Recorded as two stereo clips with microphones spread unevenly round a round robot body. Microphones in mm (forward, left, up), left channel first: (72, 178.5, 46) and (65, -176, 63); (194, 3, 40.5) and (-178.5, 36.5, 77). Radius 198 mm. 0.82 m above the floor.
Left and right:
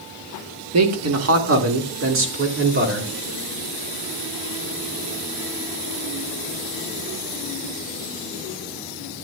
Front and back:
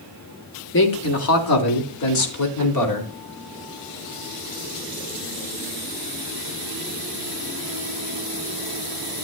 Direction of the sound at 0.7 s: 50° right.